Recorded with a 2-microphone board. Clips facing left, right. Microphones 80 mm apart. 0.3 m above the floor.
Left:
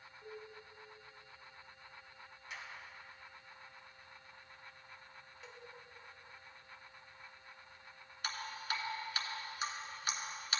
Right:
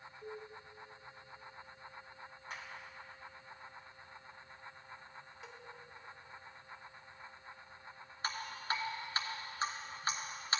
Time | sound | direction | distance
0.2 | dishes clattering | 20° right (ahead or behind) | 3.5 m
2.5 | a clap | 45° right (ahead or behind) | 2 m
5.4 | a cowbell | 5° right (ahead or behind) | 0.7 m
8.2 | dripping | 35° right (ahead or behind) | 1.1 m